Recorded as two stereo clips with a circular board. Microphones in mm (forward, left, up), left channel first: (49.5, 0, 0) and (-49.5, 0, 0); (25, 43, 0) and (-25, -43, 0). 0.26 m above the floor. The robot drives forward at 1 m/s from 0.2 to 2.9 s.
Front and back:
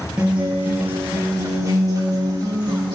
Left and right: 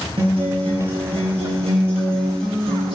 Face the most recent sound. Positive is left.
turn(degrees=-135)